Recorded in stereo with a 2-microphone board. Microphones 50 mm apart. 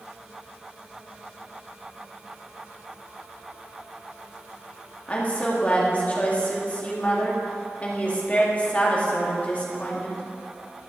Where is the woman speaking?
30° left (ahead or behind), 1.8 m.